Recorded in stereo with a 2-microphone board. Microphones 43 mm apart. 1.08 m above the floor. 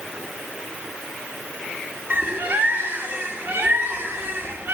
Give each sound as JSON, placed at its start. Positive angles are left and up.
{"t": 2.1, "sound": "a bird", "side_deg": -60, "distance_m": 1.3}